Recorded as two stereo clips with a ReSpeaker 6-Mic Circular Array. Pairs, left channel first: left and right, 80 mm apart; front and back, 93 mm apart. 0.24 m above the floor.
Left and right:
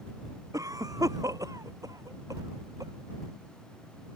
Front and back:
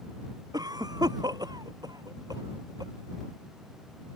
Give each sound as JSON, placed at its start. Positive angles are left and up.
{"t": 0.5, "sound": "a cough", "azimuth_deg": -135}